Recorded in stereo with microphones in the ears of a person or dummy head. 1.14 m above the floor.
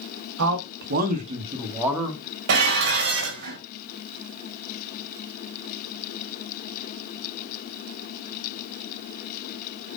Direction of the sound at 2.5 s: 65° right (ahead or behind).